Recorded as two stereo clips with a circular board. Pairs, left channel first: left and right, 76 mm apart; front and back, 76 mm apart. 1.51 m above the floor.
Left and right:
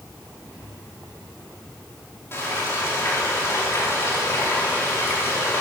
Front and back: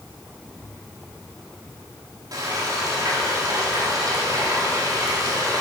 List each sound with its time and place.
2.3 s frying: 145° left, 3 m